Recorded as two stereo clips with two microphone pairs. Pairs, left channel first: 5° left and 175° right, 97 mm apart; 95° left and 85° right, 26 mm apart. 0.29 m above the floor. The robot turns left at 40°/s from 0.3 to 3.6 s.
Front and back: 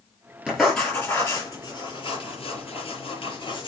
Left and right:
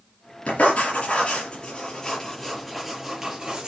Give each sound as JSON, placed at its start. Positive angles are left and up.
{"t": 0.5, "sound": "writing", "azimuth_deg": 100, "distance_m": 5.5}